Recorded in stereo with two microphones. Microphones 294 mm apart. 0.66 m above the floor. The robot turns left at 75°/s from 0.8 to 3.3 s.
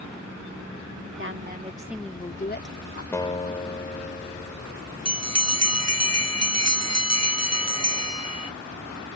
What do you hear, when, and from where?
1.2 s a woman speaking: 120° right; by 3.0 s 105° left
3.1 s a guitar: 10° left (ahead or behind); by 4.7 s 20° left (ahead or behind)
5.0 s a bell: 55° right (ahead or behind)